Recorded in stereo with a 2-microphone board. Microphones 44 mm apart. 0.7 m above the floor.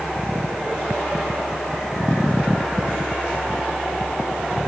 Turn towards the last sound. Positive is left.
No sound to turn to.